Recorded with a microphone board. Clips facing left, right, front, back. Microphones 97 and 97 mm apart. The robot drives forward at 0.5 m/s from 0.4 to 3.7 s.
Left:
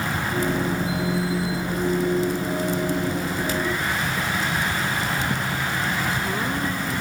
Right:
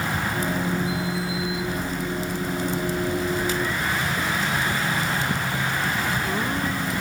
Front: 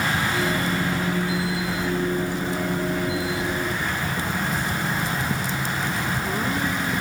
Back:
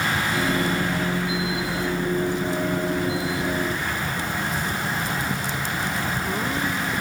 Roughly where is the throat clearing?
I don't hear throat clearing.